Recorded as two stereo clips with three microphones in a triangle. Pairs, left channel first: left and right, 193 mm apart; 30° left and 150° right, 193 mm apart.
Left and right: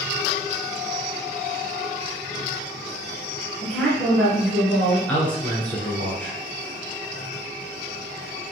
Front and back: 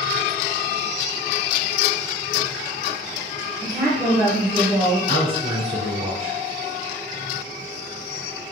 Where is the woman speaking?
20° left, 1.4 m.